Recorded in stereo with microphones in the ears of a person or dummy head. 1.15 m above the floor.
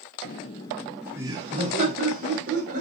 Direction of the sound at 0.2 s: 40° left (ahead or behind).